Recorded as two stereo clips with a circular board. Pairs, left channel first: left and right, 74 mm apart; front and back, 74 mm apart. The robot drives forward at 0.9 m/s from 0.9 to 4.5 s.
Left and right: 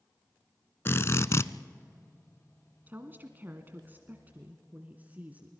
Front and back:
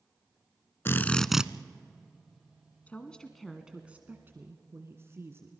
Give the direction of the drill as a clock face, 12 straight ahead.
10 o'clock.